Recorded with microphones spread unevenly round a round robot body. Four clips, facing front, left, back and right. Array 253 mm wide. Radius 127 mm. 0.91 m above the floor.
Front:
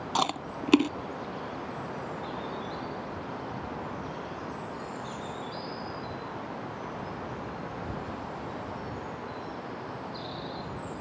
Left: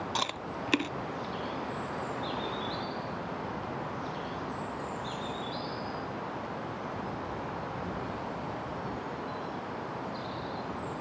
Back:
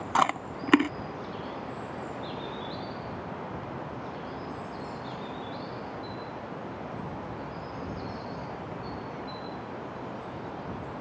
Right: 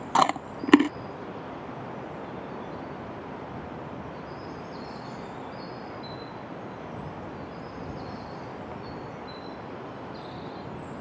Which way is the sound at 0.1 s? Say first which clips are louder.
Right 16 dB, back 4 dB; 95° right.